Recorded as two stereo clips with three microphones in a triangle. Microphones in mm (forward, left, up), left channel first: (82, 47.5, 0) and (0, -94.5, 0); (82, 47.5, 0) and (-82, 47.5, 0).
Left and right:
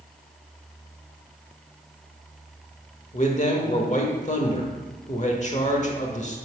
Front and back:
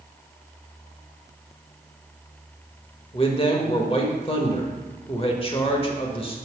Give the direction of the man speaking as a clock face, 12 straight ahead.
11 o'clock.